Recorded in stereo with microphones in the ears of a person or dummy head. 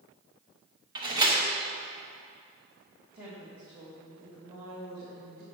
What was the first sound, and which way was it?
A door slam, 20° right (ahead or behind).